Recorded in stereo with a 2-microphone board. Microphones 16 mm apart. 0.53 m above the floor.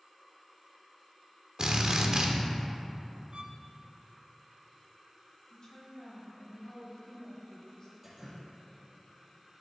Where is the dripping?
25° right (ahead or behind), 3.5 m.